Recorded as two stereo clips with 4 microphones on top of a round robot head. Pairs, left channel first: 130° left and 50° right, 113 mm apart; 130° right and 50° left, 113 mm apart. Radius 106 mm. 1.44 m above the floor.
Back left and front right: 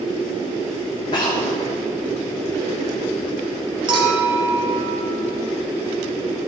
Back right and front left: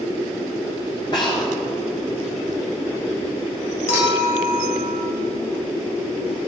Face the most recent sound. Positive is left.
turn(degrees=-100)